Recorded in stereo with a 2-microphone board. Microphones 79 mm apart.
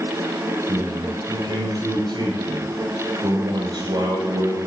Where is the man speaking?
65° right (ahead or behind), 8.5 m.